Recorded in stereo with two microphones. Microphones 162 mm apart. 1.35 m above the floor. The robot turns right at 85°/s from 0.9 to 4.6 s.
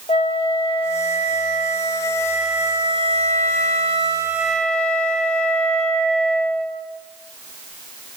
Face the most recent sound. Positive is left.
turn(degrees=5)